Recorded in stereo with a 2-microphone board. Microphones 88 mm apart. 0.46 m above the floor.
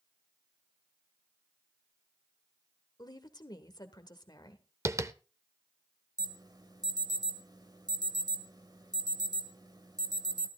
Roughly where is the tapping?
Right.